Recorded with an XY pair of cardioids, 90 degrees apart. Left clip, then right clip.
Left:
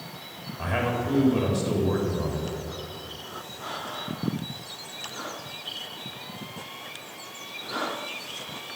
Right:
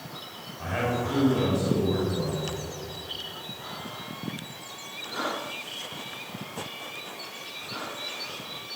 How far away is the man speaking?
About 3.5 m.